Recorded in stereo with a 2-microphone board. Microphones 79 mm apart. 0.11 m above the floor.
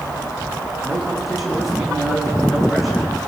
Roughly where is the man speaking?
Centre.